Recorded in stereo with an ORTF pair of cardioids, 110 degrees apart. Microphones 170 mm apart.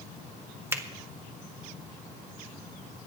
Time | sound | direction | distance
0.7 | a finger snap | 15° right | 1.7 m